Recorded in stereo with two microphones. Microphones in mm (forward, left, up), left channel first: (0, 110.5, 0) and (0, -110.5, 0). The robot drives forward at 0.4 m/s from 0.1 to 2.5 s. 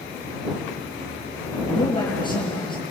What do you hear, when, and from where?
1.7 s a man speaking: 20° left (ahead or behind), 6 m